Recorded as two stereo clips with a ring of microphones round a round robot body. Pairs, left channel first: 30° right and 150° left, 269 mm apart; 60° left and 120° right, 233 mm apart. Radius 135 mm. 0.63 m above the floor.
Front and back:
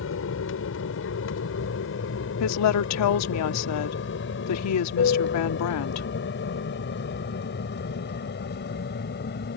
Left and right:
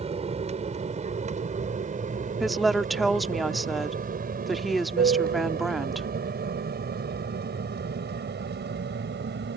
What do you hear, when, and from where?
0.0 s an aircraft: 60° right; by 9.6 s 80° right
2.4 s a woman speaking: 30° right